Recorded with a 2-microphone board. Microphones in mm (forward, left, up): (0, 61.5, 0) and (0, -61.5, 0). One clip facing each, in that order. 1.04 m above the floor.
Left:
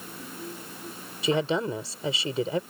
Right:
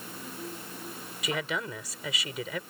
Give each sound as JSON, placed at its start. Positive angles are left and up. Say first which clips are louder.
{"t": 1.2, "sound": "a woman speaking", "louder": "left 8 dB", "side_deg": 30}